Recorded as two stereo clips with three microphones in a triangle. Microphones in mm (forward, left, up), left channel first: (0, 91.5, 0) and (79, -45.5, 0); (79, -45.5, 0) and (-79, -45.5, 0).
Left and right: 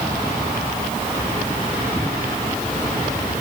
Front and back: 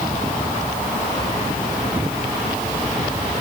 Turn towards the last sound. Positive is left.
No sound to turn to.